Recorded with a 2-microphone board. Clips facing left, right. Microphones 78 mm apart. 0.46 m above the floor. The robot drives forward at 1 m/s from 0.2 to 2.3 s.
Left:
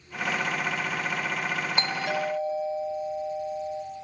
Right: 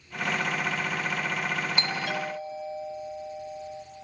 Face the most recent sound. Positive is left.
turn(degrees=25)  # may be behind; listen again after turning